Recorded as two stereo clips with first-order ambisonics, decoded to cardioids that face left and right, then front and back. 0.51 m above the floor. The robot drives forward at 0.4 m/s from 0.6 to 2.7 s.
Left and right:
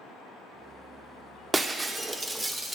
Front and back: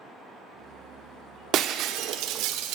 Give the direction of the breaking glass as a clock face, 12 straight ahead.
5 o'clock.